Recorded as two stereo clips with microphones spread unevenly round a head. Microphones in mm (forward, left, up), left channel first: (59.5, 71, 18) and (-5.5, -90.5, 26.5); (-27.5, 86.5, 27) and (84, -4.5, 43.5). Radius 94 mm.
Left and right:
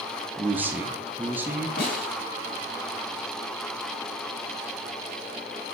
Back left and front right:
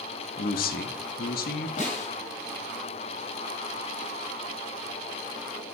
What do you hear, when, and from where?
0.4 s a man speaking: 170° left, 0.6 m
1.8 s a snare drum: 110° left, 2.5 m